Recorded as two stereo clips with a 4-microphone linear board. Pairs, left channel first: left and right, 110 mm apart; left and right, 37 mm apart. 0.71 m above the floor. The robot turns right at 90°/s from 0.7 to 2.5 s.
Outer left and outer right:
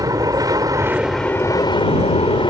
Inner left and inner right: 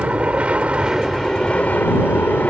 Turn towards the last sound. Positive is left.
turn(degrees=125)